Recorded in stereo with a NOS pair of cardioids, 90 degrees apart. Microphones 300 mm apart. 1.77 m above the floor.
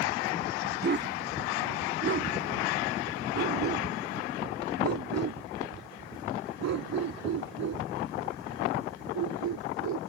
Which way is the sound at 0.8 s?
35° right.